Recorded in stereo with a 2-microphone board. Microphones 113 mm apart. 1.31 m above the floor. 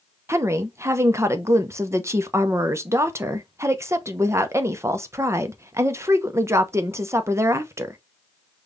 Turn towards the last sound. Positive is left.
turn(degrees=-25)  # may be behind; listen again after turning